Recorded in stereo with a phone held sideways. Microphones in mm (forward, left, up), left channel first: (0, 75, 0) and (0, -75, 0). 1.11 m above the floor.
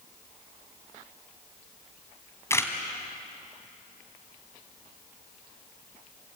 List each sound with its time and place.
2.5 s a camera shutter: 15° left (ahead or behind), 2 m